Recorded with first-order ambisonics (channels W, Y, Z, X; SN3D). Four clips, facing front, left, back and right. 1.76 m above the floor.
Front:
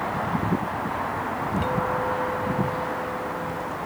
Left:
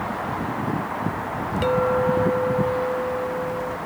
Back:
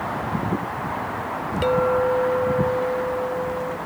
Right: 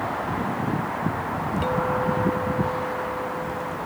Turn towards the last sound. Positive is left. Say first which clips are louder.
# left 5 dB, back 9 dB
turn(degrees=145)